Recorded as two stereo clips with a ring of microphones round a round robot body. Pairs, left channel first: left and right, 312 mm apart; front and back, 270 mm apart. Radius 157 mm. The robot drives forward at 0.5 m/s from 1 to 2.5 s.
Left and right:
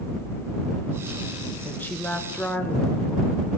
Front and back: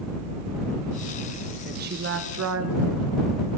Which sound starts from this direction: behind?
A woman speaking, at 1.6 s.